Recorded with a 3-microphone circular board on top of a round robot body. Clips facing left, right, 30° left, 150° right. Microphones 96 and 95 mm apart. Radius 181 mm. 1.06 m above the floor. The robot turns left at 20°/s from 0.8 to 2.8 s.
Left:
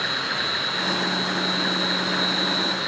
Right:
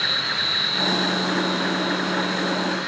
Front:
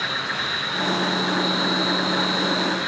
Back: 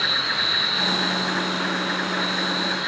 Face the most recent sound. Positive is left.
turn(degrees=90)